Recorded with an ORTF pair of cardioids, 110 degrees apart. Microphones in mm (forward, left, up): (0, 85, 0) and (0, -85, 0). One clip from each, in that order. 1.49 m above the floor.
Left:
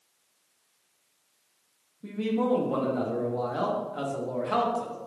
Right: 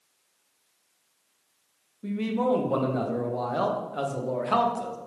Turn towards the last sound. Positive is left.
turn(degrees=-20)